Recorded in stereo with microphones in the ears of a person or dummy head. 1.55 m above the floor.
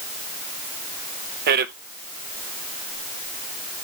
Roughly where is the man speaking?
Right.